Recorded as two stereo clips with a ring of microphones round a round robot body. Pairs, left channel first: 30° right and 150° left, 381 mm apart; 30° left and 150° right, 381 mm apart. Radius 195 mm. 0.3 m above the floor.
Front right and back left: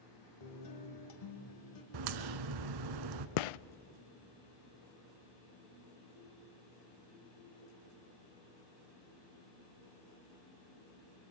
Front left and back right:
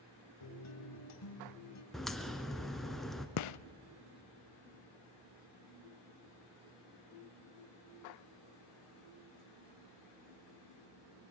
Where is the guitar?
10° right, 2.5 m.